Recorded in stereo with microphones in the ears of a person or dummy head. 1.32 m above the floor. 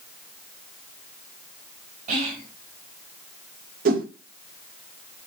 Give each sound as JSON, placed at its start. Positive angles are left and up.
{"t": 2.1, "sound": "whispering", "side_deg": -45, "distance_m": 2.0}
{"t": 3.9, "sound": "a whoosh", "side_deg": -45, "distance_m": 0.7}